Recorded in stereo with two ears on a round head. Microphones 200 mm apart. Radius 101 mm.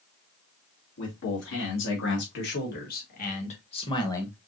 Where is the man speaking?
65° left (ahead or behind), 3 m; by 4.4 s 10° left (ahead or behind), 1.3 m.